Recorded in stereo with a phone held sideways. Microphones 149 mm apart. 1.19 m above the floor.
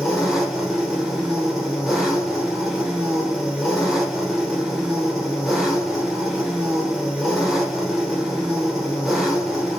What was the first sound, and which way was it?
An engine running, centre (ahead or behind).